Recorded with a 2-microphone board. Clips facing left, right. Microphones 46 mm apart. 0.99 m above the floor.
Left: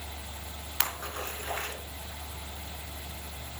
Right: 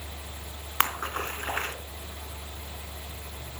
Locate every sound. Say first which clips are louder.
0.8 s a splash: right 7 dB; 45° right (ahead or behind), 2 m